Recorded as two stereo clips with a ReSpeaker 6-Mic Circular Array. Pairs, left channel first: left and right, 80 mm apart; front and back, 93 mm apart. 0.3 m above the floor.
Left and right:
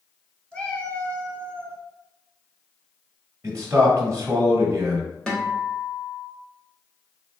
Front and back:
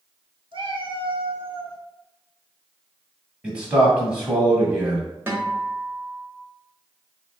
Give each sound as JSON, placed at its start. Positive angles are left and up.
{"t": 0.5, "sound": "a cat meowing", "azimuth_deg": 165, "distance_m": 1.0}
{"t": 3.4, "sound": "a man speaking", "azimuth_deg": -100, "distance_m": 1.4}
{"t": 5.3, "sound": "a guitar", "azimuth_deg": 155, "distance_m": 1.1}